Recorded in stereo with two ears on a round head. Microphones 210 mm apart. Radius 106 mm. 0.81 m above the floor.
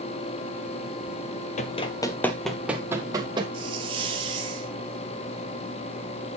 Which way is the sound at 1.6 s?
30° left (ahead or behind).